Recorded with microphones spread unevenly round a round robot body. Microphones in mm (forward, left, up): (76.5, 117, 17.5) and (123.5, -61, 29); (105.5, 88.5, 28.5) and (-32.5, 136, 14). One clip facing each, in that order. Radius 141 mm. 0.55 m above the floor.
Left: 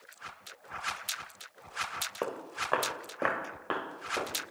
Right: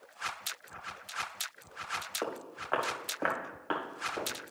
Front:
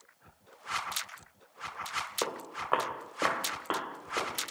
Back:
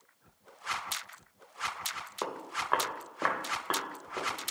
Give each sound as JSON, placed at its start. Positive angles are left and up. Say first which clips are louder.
{"t": 2.2, "sound": "footsteps", "louder": "left 2 dB, even", "azimuth_deg": 55, "distance_m": 2.5}